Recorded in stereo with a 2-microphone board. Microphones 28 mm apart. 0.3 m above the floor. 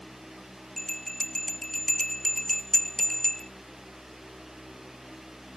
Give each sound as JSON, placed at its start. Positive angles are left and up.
{"t": 0.8, "sound": "a bell", "side_deg": 15}